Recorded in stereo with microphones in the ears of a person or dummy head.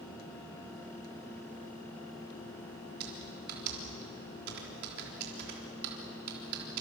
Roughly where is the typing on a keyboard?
Right.